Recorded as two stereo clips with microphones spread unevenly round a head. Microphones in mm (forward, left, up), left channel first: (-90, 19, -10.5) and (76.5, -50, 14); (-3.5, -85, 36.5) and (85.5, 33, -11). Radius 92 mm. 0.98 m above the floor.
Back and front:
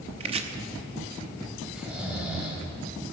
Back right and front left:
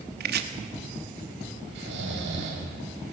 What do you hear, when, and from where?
0.2 s chopping: 40° left, 1.0 m
1.8 s snoring: 60° left, 3 m